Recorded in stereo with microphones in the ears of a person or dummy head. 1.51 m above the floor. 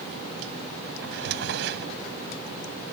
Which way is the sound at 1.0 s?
60° right (ahead or behind).